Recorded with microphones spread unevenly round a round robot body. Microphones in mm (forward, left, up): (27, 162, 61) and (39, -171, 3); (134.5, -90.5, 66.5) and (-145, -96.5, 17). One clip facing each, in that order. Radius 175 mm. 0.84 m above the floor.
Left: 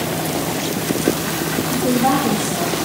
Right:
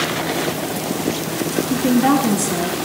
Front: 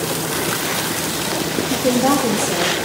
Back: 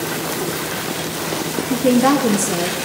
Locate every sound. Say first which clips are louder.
1.7 s a woman speaking: right 3 dB, back 3 dB; 130° right, 0.9 m